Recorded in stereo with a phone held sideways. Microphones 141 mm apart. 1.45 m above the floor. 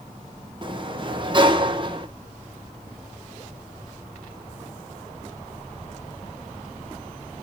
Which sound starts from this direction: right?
A sliding door, at 0.6 s.